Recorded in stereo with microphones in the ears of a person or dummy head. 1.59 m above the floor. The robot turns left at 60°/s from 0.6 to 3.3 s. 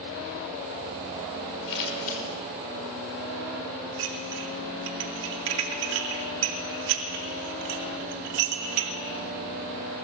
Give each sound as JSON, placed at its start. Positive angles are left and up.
{"t": 1.7, "sound": "scissors", "side_deg": 75, "distance_m": 5.5}
{"t": 4.0, "sound": "dishes clattering", "side_deg": -65, "distance_m": 2.5}